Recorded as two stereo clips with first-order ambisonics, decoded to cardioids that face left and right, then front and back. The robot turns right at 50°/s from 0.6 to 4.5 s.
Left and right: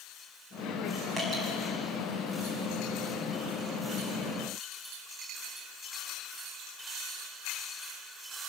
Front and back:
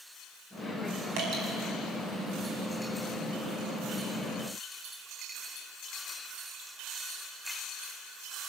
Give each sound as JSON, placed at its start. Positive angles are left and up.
{"t": 1.2, "sound": "dripping", "azimuth_deg": -170, "distance_m": 5.5}